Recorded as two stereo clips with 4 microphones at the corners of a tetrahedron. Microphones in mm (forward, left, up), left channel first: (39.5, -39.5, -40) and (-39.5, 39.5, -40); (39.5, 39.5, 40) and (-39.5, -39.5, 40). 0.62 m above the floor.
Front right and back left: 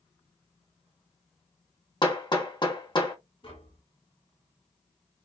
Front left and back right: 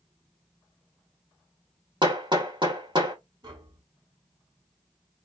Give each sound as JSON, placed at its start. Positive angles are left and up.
{"t": 2.0, "sound": "hammering", "azimuth_deg": -90, "distance_m": 1.7}
{"t": 3.4, "sound": "tapping", "azimuth_deg": -85, "distance_m": 2.0}